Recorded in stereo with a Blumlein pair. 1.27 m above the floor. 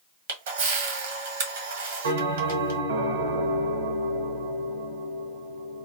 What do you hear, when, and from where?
0.3 s a camera shutter: 55° right, 1.0 m
2.0 s a bell: 65° right, 0.9 m